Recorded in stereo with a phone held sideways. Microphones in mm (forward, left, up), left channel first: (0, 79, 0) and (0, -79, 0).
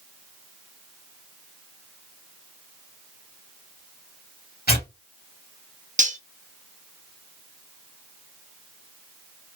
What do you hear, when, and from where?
4.7 s tearing paper: 80° left, 2.5 m
6.0 s cutlery clinking: 55° right (ahead or behind), 0.9 m